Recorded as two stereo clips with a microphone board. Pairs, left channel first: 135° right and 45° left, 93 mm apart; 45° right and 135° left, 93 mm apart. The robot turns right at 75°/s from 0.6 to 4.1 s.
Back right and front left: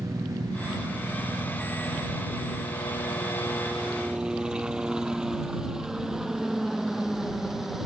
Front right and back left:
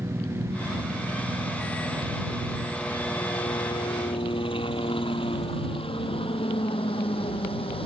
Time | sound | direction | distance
0.0 | a helicopter | 85° left | ?